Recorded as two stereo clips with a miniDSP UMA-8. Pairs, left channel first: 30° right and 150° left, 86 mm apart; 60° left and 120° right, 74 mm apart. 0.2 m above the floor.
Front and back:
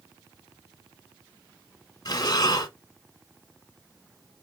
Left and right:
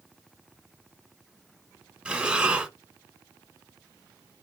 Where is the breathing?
50° right, 1.5 m.